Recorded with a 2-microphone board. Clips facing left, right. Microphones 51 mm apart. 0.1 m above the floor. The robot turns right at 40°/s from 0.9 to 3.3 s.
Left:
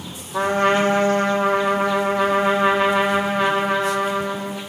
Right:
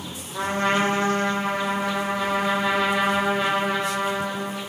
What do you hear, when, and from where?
0.3 s a trumpet: 80° left, 2.5 m; by 4.6 s 175° left, 2.5 m